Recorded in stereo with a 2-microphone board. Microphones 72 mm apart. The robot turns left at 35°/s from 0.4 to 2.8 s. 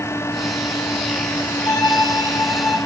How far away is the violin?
About 2 m.